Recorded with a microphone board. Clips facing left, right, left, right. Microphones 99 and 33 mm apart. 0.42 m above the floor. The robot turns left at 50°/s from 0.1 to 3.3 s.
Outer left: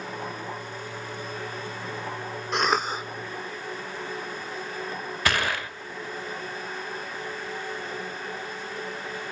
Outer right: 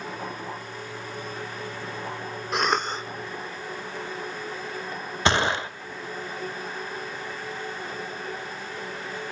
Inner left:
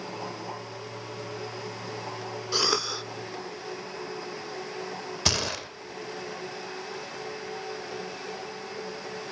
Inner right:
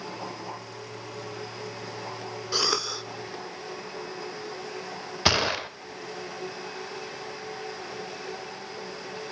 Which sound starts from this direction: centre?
A cough, at 2.5 s.